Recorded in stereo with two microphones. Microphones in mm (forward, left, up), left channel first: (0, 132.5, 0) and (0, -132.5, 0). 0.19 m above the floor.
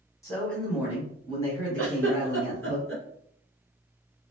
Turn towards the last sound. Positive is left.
turn(degrees=-50)  # may be behind; listen again after turning